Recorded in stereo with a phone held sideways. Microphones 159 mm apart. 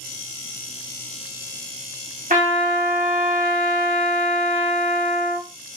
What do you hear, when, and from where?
2.3 s a trumpet: 55° right (ahead or behind), 0.8 m